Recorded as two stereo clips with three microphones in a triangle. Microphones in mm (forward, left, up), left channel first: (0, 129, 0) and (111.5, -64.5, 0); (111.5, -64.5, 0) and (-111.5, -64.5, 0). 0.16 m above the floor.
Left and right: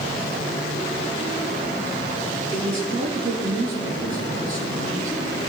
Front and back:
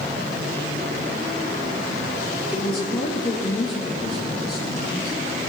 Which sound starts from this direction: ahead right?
A woman speaking, at 2.5 s.